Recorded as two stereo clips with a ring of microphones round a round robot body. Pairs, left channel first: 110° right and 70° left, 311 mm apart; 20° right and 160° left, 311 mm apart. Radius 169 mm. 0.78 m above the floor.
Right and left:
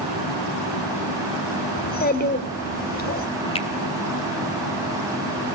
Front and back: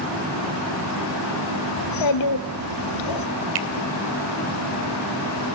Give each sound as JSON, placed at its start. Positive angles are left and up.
{"t": 1.8, "sound": "a child speaking", "azimuth_deg": -50, "distance_m": 1.7}
{"t": 3.5, "sound": "a finger snap", "azimuth_deg": 175, "distance_m": 2.5}